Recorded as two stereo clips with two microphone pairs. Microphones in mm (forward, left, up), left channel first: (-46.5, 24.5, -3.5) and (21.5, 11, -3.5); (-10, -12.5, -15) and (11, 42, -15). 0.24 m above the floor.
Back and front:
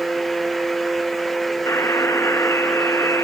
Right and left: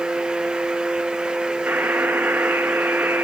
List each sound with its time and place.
1.7 s a buzzer: 125° left, 0.9 m